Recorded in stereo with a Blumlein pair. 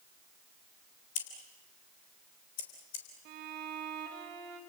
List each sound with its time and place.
1.1 s scissors: 50° left, 3.5 m
3.2 s a violin: 40° right, 3.5 m